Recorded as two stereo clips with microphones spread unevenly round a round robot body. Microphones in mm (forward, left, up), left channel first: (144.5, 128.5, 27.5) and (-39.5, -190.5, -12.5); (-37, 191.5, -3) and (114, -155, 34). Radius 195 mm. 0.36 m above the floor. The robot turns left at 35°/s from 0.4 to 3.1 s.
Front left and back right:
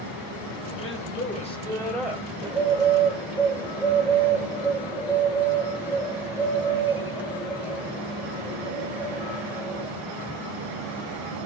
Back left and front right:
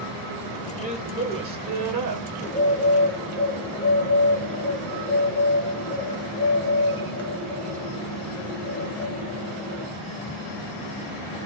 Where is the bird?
155° right, 1.4 m; by 9.9 s straight behind, 1.4 m.